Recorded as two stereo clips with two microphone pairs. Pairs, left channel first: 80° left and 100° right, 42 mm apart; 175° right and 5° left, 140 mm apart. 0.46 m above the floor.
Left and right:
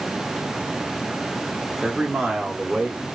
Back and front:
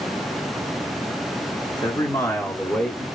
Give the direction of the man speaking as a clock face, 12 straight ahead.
7 o'clock.